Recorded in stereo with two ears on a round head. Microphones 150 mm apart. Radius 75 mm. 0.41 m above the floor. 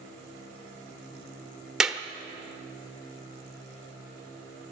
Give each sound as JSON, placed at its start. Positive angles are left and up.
{"t": 1.8, "sound": "a clap", "side_deg": -5, "distance_m": 0.9}